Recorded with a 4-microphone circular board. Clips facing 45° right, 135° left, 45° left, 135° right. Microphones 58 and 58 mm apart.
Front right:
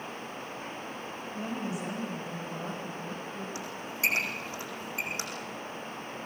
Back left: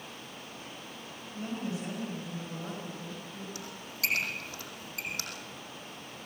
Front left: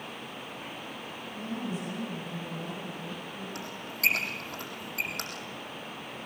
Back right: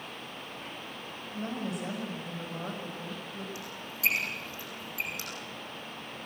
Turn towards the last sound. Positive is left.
turn(degrees=20)